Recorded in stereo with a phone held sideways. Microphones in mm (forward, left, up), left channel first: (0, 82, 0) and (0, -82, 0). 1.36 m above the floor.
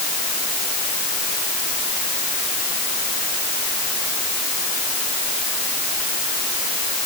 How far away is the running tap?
I don't hear a running tap.